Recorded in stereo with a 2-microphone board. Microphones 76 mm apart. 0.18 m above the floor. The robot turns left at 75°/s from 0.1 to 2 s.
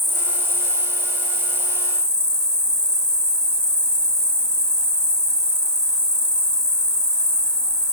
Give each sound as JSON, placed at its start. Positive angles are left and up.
{"t": 0.0, "sound": "an insect", "azimuth_deg": 0, "distance_m": 1.1}